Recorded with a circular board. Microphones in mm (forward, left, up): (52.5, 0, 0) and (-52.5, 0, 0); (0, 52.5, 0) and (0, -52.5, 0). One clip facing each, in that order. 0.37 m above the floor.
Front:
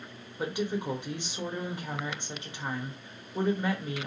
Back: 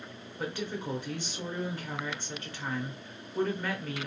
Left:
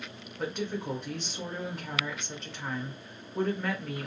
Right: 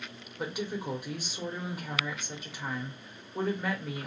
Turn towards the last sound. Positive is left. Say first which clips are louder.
# front 4 dB, left 1 dB
turn(degrees=-25)